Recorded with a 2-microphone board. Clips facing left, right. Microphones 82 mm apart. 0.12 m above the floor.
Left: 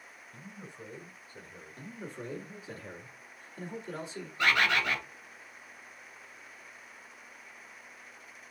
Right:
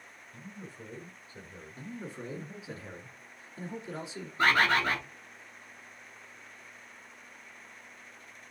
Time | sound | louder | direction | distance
0.3 | a man speaking | right 1 dB | 30° left (ahead or behind) | 1.2 m
1.8 | a man speaking | right 1 dB | centre (ahead or behind) | 1.7 m
4.4 | a bird | right 2 dB | 35° right (ahead or behind) | 0.8 m